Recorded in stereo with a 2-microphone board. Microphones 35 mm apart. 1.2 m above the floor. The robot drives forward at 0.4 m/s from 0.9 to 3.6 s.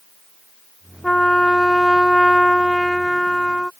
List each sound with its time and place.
1.0 s a trumpet: 15° left (ahead or behind); by 3.7 s 5° left (ahead or behind)